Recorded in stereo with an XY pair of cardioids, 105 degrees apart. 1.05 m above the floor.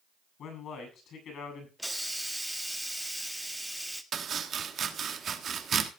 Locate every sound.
0.4 s a man speaking: 65° left, 7.5 m
1.8 s a hiss: straight ahead, 1.3 m
4.1 s chopping: 50° right, 1.4 m